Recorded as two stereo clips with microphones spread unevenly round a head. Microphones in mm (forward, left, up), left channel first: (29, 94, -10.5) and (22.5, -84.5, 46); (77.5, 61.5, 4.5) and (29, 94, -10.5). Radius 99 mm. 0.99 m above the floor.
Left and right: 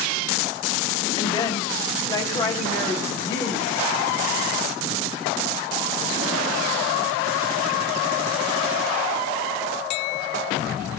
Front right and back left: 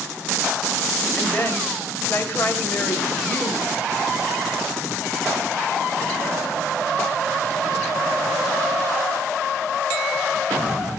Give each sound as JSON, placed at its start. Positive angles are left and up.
{"t": 1.2, "sound": "a woman speaking", "azimuth_deg": 20, "distance_m": 4.0}